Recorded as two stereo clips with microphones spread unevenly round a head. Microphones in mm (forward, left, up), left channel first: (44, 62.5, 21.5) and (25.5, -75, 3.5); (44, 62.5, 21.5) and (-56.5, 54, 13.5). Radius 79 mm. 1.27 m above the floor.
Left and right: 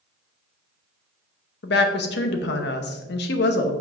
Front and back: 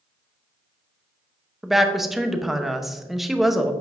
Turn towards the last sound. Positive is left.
turn(degrees=100)